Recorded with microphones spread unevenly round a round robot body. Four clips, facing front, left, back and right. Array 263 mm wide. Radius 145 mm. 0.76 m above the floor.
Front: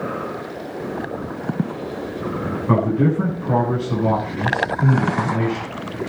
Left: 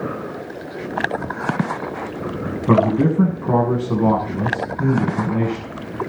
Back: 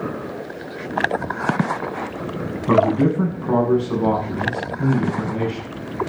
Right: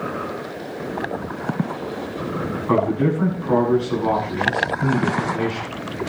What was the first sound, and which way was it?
A man speaking, 105° left.